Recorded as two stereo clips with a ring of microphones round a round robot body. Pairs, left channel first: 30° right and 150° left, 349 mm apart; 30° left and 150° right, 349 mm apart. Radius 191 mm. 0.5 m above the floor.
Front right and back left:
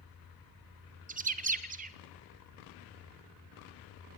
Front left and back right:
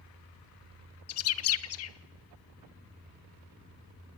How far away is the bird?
About 0.7 m.